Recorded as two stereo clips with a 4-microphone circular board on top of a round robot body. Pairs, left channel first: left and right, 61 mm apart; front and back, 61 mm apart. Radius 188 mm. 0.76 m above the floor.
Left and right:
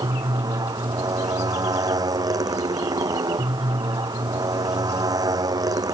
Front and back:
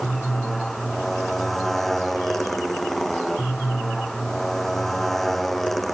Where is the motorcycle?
85° right.